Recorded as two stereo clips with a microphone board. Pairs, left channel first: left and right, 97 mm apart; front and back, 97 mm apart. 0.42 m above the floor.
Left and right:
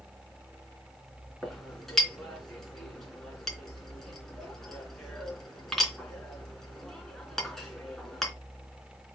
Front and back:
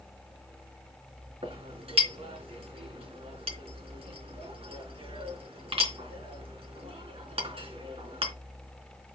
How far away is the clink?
About 3 m.